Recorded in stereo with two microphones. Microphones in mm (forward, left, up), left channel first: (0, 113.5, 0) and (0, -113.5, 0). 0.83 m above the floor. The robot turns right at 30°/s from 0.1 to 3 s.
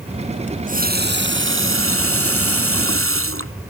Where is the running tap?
150° right; by 3.5 s 75° right.